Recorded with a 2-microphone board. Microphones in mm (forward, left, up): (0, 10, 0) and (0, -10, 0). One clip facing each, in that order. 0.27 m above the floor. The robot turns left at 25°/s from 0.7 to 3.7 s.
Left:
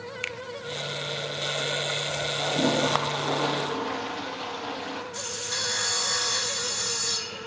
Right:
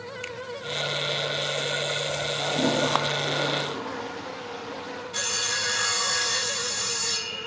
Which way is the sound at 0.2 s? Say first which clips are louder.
Left 5 dB; 30° left (ahead or behind).